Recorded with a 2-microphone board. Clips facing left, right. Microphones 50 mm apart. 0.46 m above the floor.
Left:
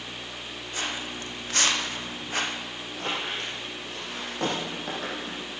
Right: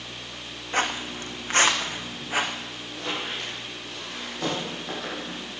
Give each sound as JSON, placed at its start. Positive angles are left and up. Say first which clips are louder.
{"t": 0.7, "sound": "footsteps", "louder": "right 7 dB", "side_deg": -50, "distance_m": 1.9}
{"t": 2.9, "sound": "a squeak", "louder": "even", "side_deg": 45, "distance_m": 6.5}